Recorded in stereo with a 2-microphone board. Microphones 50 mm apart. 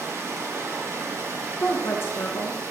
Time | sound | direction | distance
0.0 | running water | 70° right (ahead or behind) | 2.5 m
1.6 | a woman speaking | 55° left (ahead or behind) | 1.3 m